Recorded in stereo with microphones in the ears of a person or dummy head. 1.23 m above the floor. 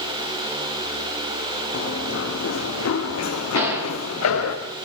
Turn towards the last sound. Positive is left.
turn(degrees=-15)  # may be behind; listen again after turning